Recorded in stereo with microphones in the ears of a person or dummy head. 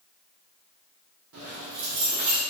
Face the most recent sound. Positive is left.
turn(degrees=-60)  # may be behind; listen again after turning